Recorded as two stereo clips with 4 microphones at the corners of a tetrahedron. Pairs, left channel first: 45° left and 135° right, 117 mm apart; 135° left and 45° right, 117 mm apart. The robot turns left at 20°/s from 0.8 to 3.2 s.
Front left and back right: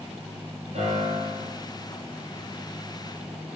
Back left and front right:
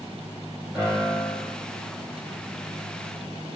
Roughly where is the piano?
Right.